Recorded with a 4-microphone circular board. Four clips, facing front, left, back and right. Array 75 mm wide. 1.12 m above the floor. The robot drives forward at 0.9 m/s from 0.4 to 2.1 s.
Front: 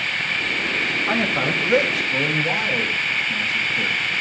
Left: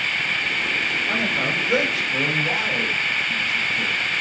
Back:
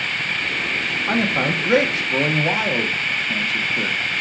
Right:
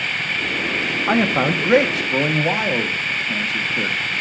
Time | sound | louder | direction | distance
1.1 | a man speaking | right 10 dB, back 3 dB | 95° right | 1.4 m